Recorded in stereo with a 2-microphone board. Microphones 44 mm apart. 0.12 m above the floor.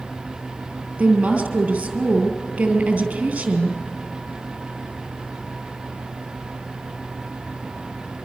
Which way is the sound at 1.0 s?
25° right (ahead or behind).